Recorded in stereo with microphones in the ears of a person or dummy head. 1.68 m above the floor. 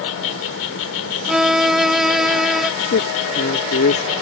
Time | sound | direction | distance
0.0 | an insect | 80° left | ?
1.3 | a violin | 5° right (ahead or behind) | ?
2.9 | a man speaking | 65° left (ahead or behind) | ?